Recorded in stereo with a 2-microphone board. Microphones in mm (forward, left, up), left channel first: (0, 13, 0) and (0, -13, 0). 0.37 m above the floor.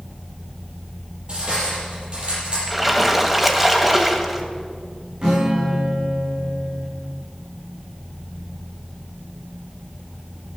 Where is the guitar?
35° right (ahead or behind), 6 m.